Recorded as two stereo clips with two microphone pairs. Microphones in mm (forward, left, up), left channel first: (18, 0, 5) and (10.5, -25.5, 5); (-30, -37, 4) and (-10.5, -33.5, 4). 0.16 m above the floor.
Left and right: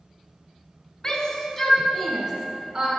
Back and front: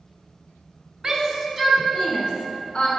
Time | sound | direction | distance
1.0 | a shout | 35° left | 1.2 m